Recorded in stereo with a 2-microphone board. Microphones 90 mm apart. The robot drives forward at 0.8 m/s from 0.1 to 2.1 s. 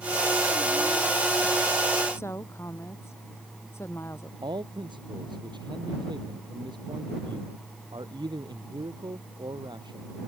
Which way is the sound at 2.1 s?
30° left (ahead or behind).